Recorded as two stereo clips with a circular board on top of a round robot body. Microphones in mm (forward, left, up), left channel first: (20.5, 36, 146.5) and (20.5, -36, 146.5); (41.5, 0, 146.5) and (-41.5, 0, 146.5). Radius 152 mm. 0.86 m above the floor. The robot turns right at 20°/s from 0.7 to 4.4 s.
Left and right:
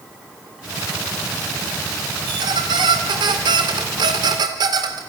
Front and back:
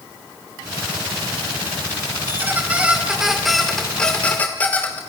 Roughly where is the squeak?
Behind right.